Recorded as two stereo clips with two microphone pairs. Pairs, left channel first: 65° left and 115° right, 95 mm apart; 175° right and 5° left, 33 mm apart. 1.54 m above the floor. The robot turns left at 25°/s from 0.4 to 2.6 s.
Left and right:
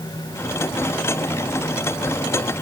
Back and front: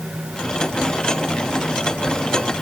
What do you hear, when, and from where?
Only background noise.